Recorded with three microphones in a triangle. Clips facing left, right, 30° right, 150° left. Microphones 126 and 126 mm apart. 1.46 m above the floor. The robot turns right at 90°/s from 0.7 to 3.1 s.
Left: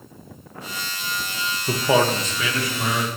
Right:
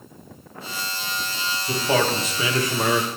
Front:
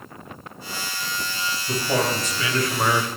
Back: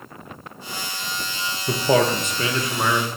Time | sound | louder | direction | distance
1.7 | a man speaking | left 3 dB, back 5 dB | 135° left | 1.4 m